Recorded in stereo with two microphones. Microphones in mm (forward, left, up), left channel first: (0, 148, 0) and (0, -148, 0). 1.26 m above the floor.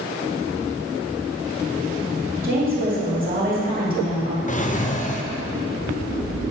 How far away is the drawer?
About 0.5 m.